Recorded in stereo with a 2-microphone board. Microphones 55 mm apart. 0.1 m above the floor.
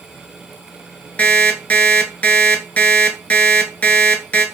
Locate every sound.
1.2 s an alarm clock: 30° left (ahead or behind), 0.6 m